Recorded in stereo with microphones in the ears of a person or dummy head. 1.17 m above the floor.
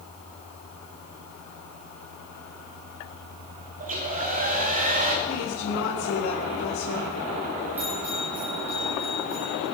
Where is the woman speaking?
90° left, 4 m.